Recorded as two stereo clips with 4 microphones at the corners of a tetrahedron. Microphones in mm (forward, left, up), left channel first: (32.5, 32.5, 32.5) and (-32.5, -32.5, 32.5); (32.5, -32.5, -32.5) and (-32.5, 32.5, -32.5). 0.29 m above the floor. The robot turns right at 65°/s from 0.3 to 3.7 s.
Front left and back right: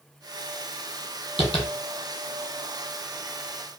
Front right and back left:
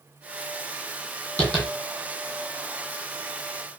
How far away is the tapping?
About 1.8 m.